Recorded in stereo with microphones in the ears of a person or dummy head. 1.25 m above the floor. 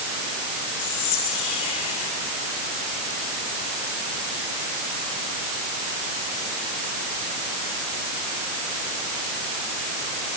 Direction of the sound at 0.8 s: 35° left (ahead or behind).